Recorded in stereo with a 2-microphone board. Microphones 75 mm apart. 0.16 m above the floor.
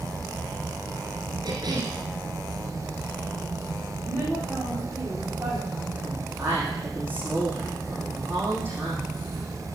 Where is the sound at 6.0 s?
25° right (ahead or behind), 6.5 m.